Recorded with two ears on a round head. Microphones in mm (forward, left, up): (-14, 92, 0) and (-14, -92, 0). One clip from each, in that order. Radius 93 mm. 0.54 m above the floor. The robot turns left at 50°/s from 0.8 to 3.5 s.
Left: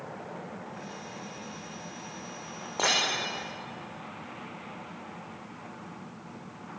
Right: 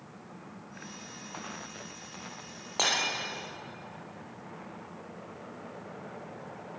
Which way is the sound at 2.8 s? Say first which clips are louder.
Left 2 dB; 40° right (ahead or behind).